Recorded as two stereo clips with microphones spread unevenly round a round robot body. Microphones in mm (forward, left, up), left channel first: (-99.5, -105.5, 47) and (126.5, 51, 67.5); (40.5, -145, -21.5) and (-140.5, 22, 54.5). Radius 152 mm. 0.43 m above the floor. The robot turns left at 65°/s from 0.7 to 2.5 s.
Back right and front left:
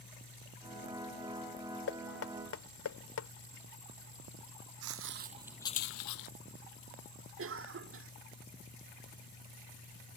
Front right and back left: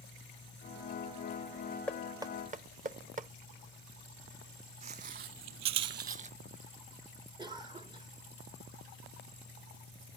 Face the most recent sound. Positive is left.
turn(degrees=50)